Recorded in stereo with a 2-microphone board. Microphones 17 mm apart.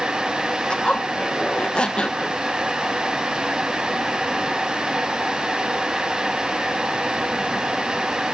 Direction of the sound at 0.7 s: 70° left (ahead or behind).